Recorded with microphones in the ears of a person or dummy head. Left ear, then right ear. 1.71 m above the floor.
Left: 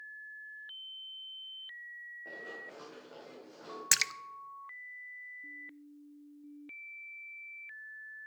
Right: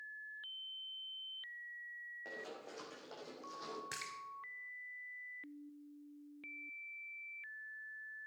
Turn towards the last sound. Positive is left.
turn(degrees=80)